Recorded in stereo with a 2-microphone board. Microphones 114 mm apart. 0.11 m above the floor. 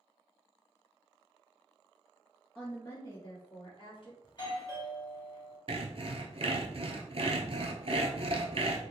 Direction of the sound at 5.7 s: 60° right (ahead or behind).